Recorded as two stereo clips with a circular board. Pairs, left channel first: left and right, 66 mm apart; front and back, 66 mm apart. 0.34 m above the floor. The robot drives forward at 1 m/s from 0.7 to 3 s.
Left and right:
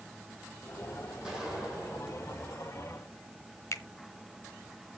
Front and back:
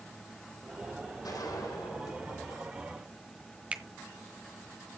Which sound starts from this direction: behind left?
A finger snap, at 3.7 s.